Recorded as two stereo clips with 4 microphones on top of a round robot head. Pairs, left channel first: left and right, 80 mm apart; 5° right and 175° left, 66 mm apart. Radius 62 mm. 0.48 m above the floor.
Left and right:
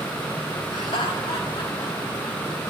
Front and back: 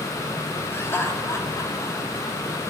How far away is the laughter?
About 3.5 m.